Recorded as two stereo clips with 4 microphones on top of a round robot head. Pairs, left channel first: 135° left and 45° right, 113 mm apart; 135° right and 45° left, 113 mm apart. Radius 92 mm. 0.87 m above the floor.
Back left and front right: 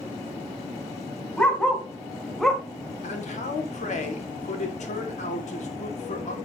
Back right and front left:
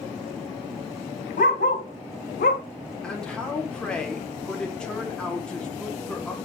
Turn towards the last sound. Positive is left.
turn(degrees=140)